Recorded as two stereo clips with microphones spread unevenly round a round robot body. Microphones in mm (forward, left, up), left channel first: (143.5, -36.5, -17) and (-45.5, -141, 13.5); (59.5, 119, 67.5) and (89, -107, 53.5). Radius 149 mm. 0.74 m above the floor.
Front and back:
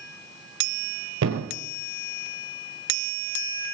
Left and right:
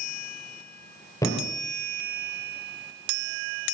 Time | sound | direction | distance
1.2 | a thud | 175° left | 1.8 m